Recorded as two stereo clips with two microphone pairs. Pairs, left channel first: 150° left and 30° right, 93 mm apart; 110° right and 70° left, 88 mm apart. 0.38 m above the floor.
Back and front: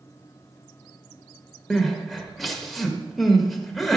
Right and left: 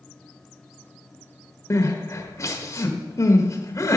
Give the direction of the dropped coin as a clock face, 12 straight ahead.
No dropped coin in this recording.